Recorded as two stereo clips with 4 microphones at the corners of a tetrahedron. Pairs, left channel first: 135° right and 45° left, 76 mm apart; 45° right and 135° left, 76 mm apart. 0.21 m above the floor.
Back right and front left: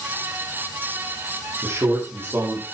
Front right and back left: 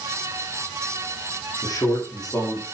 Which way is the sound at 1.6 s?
10° right.